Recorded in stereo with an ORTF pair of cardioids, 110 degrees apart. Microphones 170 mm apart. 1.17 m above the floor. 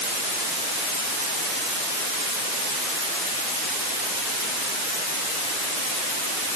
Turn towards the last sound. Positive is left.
No sound to turn to.